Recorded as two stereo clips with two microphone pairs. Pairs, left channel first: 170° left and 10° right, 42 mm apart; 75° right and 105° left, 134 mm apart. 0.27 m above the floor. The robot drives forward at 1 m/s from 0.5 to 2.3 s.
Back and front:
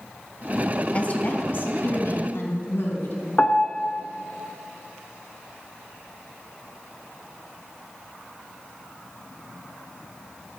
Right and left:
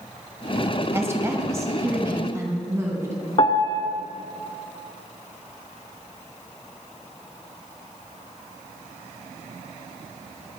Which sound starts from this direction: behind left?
A woman speaking, at 0.9 s.